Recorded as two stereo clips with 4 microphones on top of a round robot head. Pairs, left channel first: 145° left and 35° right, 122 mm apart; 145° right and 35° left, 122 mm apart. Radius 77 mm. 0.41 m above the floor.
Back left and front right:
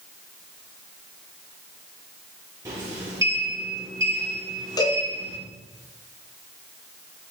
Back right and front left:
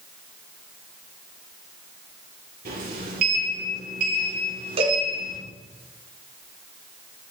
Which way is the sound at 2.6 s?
30° left.